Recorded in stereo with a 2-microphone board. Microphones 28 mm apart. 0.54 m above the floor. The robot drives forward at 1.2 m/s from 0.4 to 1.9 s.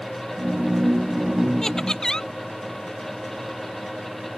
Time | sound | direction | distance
1.6 | laughter | 25° left (ahead or behind) | ?